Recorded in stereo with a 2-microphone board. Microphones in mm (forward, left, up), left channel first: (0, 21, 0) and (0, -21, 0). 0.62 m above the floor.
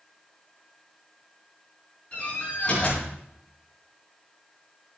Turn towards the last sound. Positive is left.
turn(degrees=35)  # may be behind; listen again after turning